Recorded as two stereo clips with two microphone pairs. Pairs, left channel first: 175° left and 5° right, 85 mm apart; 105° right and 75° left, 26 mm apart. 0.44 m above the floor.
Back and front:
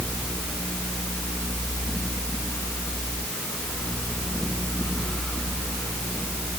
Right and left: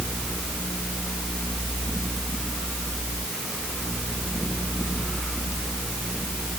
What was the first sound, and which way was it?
Only background noise.